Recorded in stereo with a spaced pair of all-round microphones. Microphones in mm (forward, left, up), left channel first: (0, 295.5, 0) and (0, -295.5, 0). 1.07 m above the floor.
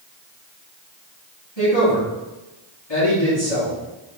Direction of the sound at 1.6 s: 45° left (ahead or behind).